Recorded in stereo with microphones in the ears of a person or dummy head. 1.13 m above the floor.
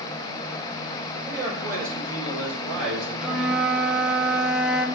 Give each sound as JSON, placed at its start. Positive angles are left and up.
{"t": 1.2, "sound": "a man speaking", "side_deg": -20, "distance_m": 5.0}
{"t": 3.2, "sound": "a flute", "side_deg": 0, "distance_m": 0.8}